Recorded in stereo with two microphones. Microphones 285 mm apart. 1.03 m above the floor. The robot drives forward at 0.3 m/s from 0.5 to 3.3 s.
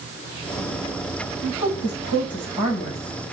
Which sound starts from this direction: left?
A woman speaking, at 1.4 s.